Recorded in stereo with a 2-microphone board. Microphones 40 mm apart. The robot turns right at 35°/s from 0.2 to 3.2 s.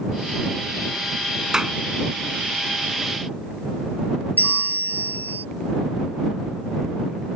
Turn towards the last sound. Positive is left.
turn(degrees=50)  # may be behind; listen again after turning